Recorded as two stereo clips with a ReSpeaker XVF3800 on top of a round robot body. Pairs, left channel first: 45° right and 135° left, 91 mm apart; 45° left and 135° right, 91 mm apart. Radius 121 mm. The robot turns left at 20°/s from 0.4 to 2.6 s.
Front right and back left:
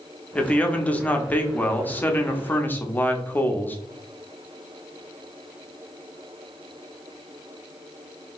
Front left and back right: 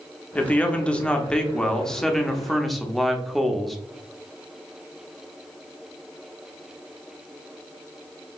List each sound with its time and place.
0.3 s a man speaking: straight ahead, 0.9 m; by 3.8 s 40° right, 0.9 m